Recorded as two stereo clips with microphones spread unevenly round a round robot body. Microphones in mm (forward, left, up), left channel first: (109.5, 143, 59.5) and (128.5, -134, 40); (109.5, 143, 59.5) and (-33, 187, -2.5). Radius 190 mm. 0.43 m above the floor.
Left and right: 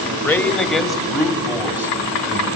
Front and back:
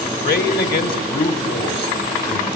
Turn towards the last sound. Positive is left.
turn(degrees=-10)